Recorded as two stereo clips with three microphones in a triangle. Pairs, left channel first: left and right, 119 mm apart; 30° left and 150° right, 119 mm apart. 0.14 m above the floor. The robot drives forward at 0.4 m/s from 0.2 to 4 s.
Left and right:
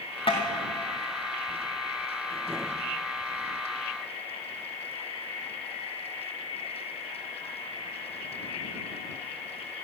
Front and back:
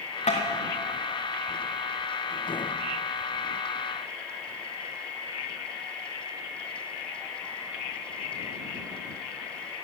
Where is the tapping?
50° left, 2.5 m.